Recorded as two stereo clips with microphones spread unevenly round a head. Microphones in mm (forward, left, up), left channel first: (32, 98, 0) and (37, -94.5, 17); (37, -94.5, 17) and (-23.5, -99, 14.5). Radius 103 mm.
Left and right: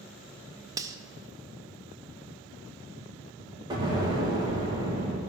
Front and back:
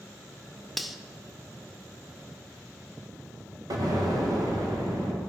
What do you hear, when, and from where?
0.8 s cutlery clinking: 80° right, 0.5 m
3.7 s an explosion: 160° right, 1.7 m